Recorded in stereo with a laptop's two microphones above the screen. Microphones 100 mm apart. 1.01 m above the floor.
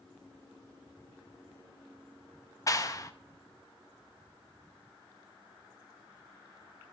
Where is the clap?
35° left (ahead or behind), 1.0 m.